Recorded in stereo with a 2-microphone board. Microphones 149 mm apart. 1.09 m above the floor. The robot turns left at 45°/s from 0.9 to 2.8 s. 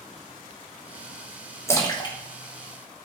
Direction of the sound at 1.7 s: 20° left (ahead or behind).